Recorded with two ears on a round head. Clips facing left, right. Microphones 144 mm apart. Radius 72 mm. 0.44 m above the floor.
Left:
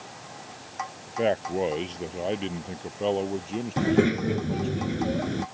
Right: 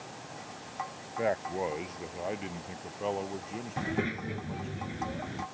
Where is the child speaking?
60° left (ahead or behind).